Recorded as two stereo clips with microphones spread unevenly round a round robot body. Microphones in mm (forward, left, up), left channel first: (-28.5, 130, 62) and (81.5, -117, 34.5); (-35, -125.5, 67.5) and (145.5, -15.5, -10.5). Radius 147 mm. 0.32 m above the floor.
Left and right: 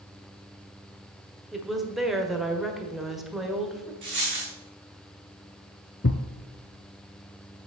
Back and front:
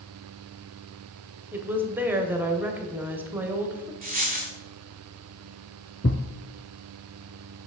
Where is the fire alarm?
I don't hear a fire alarm.